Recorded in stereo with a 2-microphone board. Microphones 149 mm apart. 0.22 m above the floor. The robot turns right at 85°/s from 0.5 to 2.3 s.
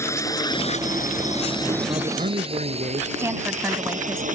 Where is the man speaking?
150° right; by 3.1 s 115° right.